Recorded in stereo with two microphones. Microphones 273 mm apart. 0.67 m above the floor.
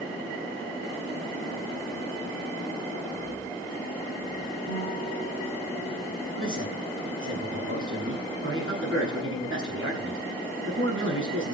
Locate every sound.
4.7 s a guitar: 55° right (ahead or behind), 3.5 m
6.3 s a man speaking: 50° right (ahead or behind), 7.5 m